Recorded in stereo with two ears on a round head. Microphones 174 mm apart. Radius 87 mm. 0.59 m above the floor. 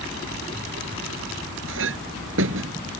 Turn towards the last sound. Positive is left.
turn(degrees=-70)  # may be behind; listen again after turning